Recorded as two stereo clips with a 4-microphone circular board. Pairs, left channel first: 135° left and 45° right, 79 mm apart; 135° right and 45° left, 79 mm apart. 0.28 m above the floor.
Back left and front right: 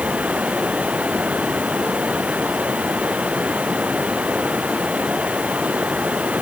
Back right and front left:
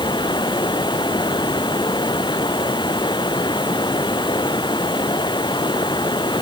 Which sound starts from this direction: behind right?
Running water, at 0.0 s.